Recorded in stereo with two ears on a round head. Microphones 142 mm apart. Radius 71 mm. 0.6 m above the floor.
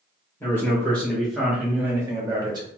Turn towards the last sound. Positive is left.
turn(degrees=-25)  # may be behind; listen again after turning